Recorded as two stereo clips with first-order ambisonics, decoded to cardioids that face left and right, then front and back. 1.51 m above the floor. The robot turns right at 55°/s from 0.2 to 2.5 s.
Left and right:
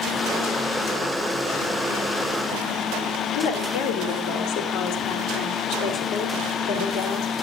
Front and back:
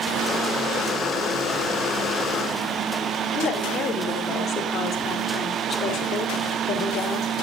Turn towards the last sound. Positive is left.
turn(degrees=65)